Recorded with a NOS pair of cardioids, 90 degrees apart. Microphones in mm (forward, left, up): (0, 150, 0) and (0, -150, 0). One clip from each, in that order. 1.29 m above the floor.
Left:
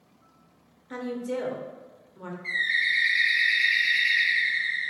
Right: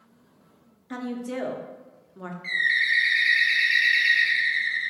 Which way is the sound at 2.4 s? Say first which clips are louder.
Right 2 dB; 40° right.